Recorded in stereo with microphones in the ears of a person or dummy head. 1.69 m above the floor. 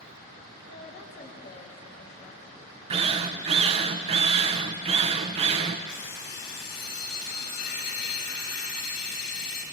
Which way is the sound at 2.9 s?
35° right (ahead or behind).